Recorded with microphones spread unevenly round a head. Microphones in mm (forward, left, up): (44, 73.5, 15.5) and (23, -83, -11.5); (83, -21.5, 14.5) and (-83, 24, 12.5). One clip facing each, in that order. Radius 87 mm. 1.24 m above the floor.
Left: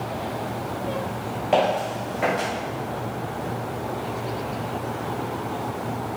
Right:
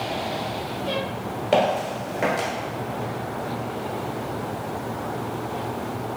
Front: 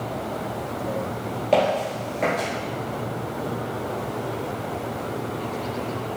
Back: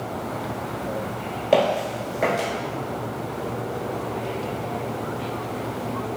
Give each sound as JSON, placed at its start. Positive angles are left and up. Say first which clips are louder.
{"t": 1.5, "sound": "footsteps", "louder": "even, back 1 dB", "azimuth_deg": -120, "distance_m": 1.4}